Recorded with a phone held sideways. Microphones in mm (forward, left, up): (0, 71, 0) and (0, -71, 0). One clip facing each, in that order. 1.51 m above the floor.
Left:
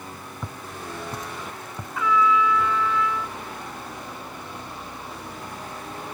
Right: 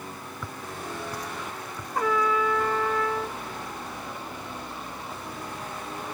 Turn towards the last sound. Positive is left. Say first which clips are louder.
# left 3 dB
turn(degrees=-45)  # may be behind; listen again after turning